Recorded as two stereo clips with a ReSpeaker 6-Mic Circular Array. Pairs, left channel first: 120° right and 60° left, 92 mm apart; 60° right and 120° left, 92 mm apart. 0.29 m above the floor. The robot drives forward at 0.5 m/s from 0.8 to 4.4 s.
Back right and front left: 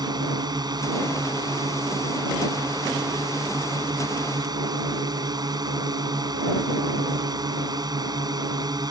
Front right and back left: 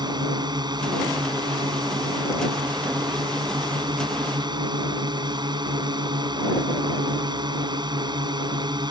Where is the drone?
90° left; by 8.9 s 95° left.